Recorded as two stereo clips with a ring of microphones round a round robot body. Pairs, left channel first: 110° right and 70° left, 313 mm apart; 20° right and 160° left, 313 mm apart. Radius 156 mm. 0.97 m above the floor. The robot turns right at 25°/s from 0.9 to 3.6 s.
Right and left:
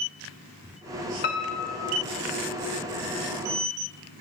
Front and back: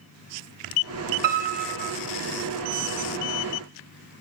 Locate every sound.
1.2 s a piano: 170° right, 1.3 m; by 1.9 s 155° right, 1.3 m